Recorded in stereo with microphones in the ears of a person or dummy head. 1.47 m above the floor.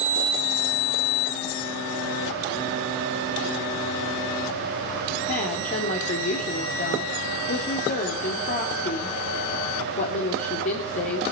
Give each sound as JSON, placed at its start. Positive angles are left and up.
{"t": 5.3, "sound": "a woman speaking", "side_deg": 45, "distance_m": 3.0}